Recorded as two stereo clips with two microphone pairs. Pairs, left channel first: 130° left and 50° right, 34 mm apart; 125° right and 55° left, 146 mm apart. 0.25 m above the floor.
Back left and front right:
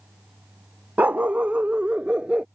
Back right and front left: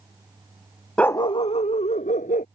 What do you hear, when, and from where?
1.0 s a dog barking: 45° right; by 2.5 s 105° right